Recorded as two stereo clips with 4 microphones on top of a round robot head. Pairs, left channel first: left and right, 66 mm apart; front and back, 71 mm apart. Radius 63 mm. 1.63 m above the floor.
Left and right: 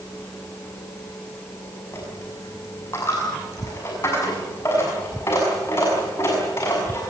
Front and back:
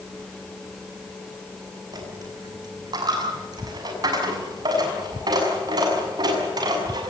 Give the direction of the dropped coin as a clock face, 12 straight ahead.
7 o'clock.